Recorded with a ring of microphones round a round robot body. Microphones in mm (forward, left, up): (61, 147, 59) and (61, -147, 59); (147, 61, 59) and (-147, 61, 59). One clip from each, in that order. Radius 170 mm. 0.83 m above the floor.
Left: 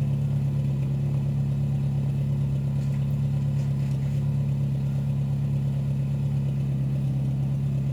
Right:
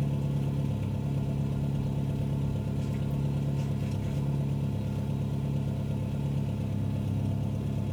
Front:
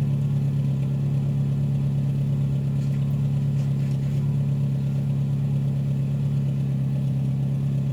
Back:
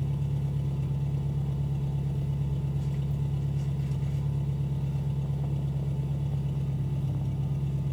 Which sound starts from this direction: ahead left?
An engine running, at 0.0 s.